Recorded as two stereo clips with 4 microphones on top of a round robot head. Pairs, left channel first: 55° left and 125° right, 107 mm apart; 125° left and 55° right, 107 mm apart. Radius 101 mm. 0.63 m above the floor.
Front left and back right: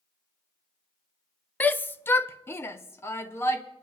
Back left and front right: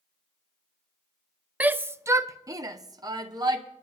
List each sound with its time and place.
1.6 s a shout: straight ahead, 0.6 m; by 3.6 s 10° right, 1.4 m